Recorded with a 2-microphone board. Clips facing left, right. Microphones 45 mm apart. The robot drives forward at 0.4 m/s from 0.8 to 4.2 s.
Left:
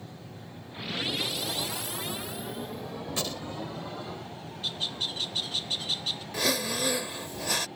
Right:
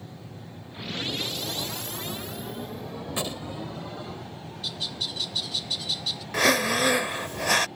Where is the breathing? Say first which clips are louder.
Right 8 dB; 65° right (ahead or behind).